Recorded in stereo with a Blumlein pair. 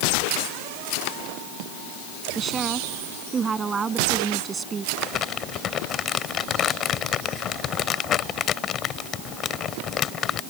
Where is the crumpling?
30° left.